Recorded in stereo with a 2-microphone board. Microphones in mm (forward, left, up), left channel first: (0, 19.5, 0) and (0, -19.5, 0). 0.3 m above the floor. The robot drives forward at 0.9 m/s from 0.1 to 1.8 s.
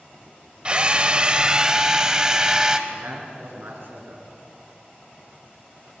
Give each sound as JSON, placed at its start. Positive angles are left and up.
{"t": 0.7, "sound": "a drill", "side_deg": -25, "distance_m": 0.8}
{"t": 2.9, "sound": "a man speaking", "side_deg": -60, "distance_m": 4.0}